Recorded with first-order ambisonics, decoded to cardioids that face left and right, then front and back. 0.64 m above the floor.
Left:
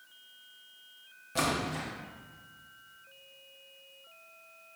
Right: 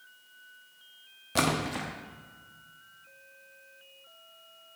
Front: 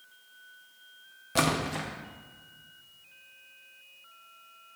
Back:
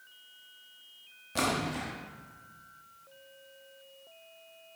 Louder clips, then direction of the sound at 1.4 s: Right 3 dB, front 3 dB; 50° right.